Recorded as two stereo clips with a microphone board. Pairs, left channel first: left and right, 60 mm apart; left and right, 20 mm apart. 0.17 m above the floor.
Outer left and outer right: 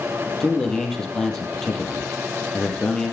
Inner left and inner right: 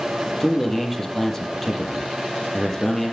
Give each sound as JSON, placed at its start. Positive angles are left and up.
{"t": 0.4, "sound": "a man speaking", "side_deg": 10, "distance_m": 6.0}